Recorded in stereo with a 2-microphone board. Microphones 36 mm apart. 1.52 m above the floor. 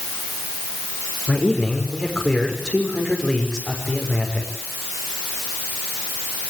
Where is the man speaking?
5° left (ahead or behind), 6 m.